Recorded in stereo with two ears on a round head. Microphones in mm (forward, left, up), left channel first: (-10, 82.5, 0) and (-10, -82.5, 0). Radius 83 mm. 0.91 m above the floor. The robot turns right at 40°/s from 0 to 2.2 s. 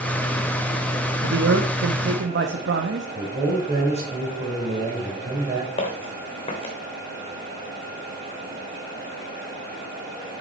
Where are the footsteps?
30° left (ahead or behind), 3 m.